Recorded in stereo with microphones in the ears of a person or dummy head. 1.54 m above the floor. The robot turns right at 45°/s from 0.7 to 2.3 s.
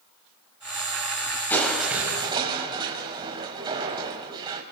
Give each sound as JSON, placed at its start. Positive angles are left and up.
{"t": 1.5, "sound": "crushing", "azimuth_deg": 170, "distance_m": 4.5}